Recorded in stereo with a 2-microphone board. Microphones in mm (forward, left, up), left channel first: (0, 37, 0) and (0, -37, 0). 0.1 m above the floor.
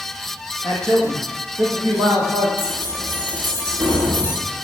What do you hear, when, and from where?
0.6 s a man speaking: 45° right (ahead or behind), 4.5 m
2.6 s keys jangling: 65° right (ahead or behind), 7 m